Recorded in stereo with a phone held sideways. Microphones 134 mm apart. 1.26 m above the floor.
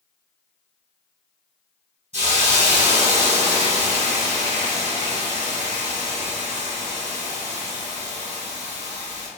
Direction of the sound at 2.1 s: 60° right (ahead or behind).